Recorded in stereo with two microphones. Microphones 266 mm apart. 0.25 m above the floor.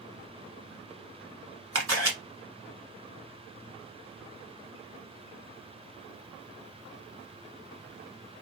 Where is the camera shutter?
55° right (ahead or behind), 1.0 m.